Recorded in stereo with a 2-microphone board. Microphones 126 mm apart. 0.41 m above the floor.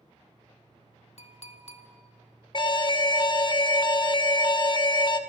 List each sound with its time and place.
1.2 s a clink: 60° left (ahead or behind), 0.9 m
2.5 s an alarm: 40° left (ahead or behind), 0.5 m